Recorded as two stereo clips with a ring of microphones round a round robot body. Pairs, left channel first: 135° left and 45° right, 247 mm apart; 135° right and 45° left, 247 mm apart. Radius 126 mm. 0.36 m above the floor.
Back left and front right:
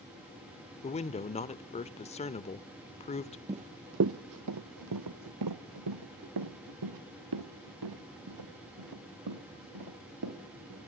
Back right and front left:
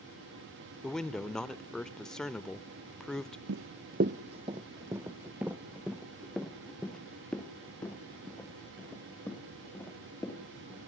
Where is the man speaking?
145° left, 0.8 m.